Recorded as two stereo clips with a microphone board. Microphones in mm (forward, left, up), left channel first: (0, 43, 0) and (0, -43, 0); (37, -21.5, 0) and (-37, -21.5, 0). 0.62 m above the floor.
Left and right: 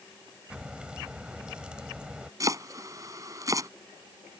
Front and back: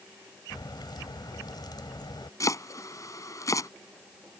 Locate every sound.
0.5 s a crack: 10° right
2.4 s chopping: 40° right